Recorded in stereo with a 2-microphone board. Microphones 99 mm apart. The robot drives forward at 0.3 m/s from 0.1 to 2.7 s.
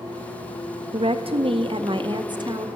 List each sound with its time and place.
0.9 s a woman speaking: 70° right (ahead or behind), 0.5 m; by 2.7 s 45° right (ahead or behind), 0.7 m